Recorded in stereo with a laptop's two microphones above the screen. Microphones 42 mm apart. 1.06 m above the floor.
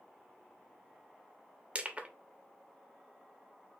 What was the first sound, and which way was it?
Crushing, 30° right (ahead or behind).